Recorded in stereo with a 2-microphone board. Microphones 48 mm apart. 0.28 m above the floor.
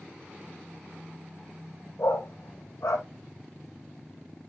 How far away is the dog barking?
About 3 m.